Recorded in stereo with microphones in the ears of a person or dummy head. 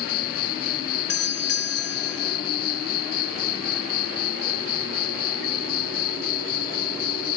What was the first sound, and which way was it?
An insect, 50° left (ahead or behind).